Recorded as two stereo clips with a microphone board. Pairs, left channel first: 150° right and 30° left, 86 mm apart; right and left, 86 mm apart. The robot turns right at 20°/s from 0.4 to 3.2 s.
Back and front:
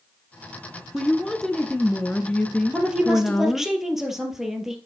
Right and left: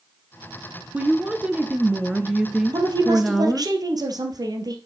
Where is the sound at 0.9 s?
125° left, 1.1 m; by 3.7 s 170° left, 1.1 m.